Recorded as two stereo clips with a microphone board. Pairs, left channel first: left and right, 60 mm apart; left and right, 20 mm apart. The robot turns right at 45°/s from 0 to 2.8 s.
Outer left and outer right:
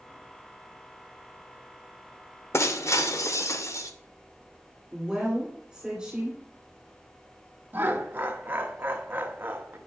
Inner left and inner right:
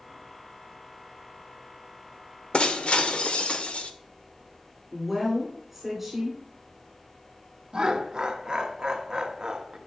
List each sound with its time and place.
2.5 s breaking glass: 50° left (ahead or behind), 0.7 m; by 3.9 s 60° left (ahead or behind), 0.7 m
4.9 s a woman speaking: 10° right (ahead or behind), 2.5 m
7.7 s laughter: 35° right (ahead or behind), 1.0 m